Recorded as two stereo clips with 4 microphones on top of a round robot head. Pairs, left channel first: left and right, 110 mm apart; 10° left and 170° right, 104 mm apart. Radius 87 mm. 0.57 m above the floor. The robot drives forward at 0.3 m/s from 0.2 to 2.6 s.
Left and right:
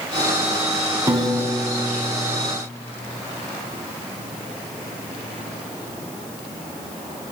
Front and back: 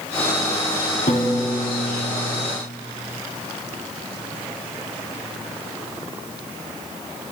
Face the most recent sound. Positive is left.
turn(degrees=-40)